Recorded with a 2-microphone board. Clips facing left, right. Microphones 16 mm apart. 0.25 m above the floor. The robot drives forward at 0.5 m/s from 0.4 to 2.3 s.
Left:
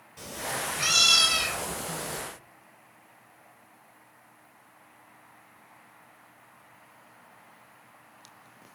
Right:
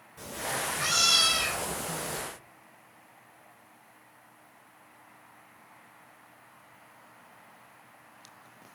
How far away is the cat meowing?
About 1.2 m.